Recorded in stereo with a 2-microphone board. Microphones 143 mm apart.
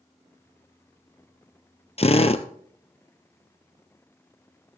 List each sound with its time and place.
2.0 s a drill: 45° left (ahead or behind), 1.0 m